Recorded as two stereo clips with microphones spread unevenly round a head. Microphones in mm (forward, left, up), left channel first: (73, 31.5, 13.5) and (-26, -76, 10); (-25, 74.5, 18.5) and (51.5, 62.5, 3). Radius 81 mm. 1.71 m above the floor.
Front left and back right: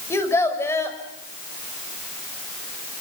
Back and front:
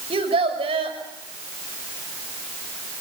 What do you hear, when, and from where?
0.1 s a child speaking: 25° right, 6 m